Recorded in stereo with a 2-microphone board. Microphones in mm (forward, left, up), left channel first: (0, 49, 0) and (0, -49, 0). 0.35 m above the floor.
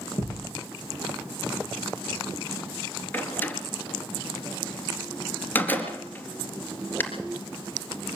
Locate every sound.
0.2 s a thud: 65° left (ahead or behind), 7 m
3.1 s a door slam: 20° left (ahead or behind), 3.5 m